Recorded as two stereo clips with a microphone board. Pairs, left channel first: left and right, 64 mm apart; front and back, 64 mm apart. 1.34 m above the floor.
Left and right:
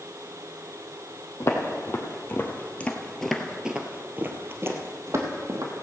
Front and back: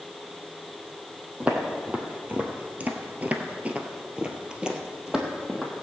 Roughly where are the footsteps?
Behind left.